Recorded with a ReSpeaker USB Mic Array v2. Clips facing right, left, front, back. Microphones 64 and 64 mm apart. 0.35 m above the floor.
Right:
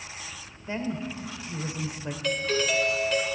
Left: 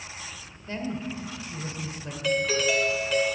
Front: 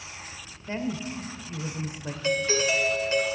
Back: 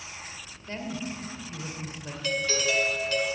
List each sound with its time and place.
0.7 s a woman speaking: 45° right, 1.4 m
2.2 s a doorbell: 10° left, 2 m